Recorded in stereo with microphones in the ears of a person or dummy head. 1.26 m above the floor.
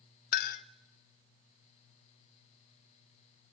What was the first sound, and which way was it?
A clink, 45° left (ahead or behind).